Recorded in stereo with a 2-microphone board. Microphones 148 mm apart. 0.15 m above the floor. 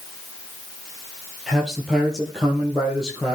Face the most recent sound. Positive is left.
turn(degrees=0)  # may be behind; listen again after turning